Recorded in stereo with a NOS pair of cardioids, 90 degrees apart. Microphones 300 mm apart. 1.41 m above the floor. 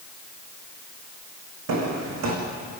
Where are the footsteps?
65° right, 6.5 m.